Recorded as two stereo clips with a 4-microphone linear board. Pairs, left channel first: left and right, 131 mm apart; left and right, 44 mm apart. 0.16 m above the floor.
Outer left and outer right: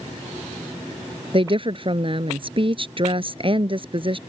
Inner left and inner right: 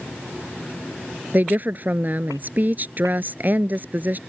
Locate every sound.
1.3 s a woman speaking: 45° right (ahead or behind)